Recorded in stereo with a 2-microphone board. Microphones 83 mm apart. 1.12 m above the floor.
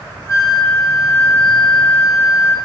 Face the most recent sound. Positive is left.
turn(degrees=35)  # may be behind; listen again after turning